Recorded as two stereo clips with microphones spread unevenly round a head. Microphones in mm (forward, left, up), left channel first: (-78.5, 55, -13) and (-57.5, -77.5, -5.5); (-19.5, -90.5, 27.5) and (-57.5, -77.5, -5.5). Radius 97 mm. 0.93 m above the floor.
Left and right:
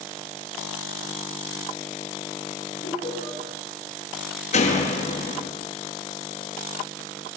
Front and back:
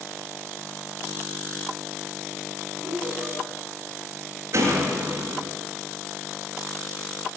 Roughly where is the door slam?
Behind left.